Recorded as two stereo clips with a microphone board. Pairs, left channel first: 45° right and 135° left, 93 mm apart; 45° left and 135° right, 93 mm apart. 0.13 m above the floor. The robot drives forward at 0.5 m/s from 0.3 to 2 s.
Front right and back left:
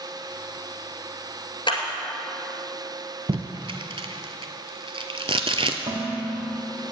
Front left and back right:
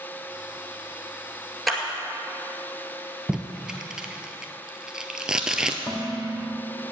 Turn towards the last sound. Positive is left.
turn(degrees=130)